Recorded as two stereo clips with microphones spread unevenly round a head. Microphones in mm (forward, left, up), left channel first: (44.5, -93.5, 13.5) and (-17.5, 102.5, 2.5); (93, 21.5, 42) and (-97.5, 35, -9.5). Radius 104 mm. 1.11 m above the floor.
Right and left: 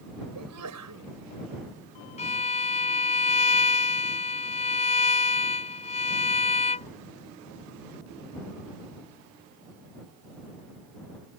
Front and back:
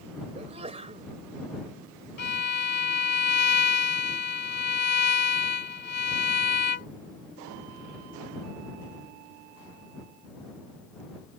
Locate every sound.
0.3 s a sneeze: 115° left
2.2 s a violin: 20° right